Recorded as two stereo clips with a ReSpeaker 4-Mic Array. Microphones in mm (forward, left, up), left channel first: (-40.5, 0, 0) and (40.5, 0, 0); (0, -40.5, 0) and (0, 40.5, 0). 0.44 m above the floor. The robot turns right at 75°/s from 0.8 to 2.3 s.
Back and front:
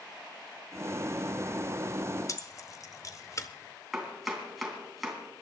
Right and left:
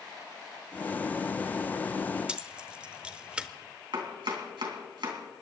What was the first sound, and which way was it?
Keys jangling, 160° left.